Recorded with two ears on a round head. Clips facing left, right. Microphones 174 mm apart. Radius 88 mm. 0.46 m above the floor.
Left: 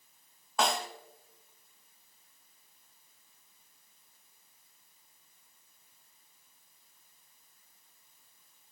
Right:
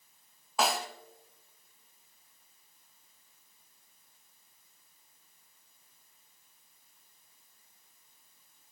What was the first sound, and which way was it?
A snare drum, 5° right (ahead or behind).